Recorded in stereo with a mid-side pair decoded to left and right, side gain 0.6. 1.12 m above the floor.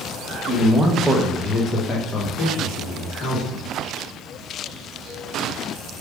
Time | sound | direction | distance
0.5 | a man speaking | 40° right | 0.9 m